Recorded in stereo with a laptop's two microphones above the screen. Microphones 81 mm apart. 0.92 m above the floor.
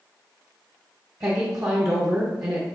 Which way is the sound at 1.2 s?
45° right (ahead or behind).